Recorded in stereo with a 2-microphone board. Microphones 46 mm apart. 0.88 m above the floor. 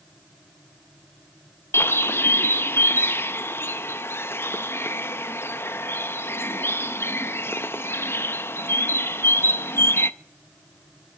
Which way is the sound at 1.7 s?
70° left (ahead or behind).